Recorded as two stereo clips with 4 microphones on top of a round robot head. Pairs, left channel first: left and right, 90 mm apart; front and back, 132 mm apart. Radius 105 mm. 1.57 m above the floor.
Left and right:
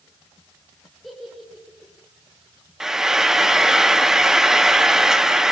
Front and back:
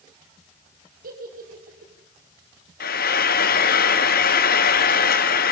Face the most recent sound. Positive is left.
turn(degrees=-5)